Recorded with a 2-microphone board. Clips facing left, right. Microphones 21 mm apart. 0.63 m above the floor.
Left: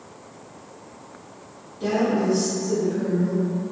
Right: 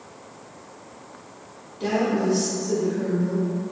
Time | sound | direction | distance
1.8 | a woman speaking | 35° right (ahead or behind) | 1.3 m